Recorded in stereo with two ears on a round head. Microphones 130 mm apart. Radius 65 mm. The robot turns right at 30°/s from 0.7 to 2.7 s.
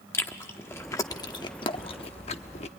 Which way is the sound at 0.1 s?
15° left (ahead or behind).